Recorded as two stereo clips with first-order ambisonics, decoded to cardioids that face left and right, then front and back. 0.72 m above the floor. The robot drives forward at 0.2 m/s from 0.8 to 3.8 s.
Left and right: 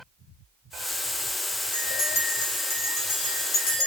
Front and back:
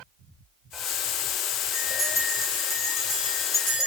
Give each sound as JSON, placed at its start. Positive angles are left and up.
{"t": 1.7, "sound": "a bell", "azimuth_deg": 80, "distance_m": 1.2}